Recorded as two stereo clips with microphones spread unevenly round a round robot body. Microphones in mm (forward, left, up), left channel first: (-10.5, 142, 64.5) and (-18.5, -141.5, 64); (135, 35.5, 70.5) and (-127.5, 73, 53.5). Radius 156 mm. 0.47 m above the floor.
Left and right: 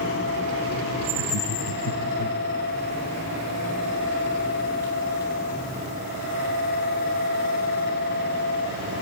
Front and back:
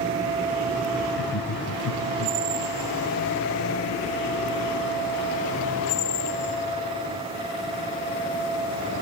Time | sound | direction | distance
1.1 | laughter | 45° left | 5 m